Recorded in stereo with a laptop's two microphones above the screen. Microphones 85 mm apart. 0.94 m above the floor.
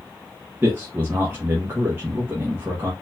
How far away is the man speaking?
About 1.0 m.